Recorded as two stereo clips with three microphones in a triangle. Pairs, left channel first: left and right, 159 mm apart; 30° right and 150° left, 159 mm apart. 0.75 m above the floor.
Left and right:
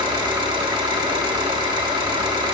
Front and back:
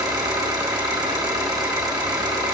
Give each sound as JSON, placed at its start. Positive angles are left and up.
{"t": 0.0, "sound": "an engine running", "azimuth_deg": -145, "distance_m": 1.6}